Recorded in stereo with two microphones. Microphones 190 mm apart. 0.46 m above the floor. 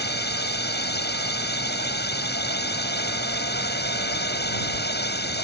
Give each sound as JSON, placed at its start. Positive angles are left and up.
{"t": 0.0, "sound": "a drone", "side_deg": 60}